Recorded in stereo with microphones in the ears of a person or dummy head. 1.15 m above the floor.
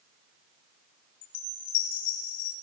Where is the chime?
70° left (ahead or behind), 6.5 m.